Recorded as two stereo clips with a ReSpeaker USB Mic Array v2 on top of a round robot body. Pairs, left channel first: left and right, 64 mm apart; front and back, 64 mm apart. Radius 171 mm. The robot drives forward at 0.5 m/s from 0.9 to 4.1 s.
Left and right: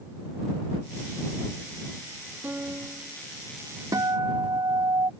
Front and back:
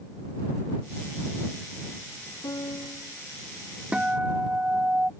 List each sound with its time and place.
2.4 s a piano: 25° right
3.9 s a guitar: 110° right